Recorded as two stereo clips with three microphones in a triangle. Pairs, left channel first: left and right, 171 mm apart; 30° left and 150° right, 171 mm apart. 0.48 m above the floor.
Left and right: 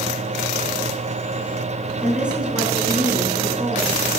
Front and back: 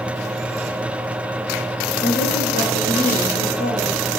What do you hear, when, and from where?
2.0 s a woman speaking: 5° right, 5.5 m; by 4.1 s 15° right, 6.5 m